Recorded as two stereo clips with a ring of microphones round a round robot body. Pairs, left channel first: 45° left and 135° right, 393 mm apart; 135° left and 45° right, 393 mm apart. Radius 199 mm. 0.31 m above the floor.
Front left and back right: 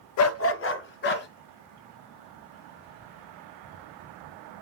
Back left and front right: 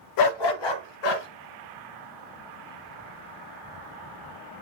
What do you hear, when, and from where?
0.2 s a dog barking: 95° left, 0.5 m; by 1.3 s 110° left, 1.9 m